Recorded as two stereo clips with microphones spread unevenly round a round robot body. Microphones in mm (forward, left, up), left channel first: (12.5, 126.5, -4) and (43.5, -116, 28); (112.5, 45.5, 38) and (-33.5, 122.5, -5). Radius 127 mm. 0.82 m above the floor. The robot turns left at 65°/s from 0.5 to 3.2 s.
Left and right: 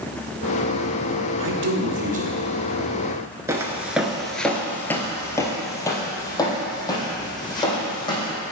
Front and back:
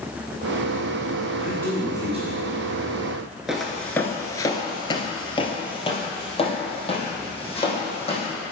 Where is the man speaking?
100° right, 1.2 m; by 3.2 s 145° left, 1.2 m.